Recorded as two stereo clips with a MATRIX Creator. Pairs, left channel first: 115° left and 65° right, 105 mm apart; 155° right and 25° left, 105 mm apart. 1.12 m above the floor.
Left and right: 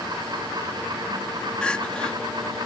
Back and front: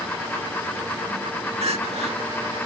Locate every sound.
1.6 s crying: 30° left